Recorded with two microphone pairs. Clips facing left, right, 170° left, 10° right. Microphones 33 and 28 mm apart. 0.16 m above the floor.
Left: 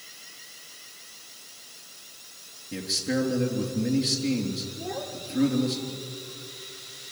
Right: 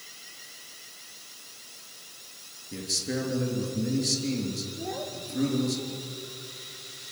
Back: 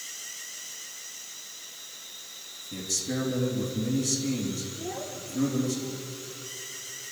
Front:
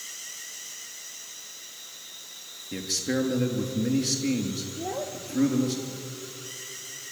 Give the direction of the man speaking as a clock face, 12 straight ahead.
11 o'clock.